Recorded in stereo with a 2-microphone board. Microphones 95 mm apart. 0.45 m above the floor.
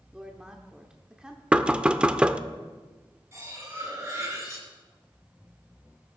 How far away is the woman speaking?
About 0.8 m.